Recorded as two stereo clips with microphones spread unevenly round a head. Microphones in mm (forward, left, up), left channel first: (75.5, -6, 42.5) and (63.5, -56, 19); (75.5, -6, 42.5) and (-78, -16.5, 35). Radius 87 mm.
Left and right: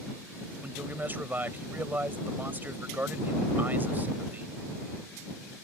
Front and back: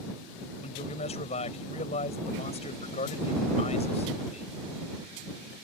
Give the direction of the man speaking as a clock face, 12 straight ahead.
2 o'clock.